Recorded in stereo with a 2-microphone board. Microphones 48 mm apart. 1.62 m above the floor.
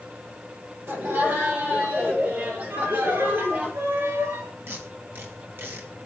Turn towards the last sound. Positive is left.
turn(degrees=-55)  # may be behind; listen again after turning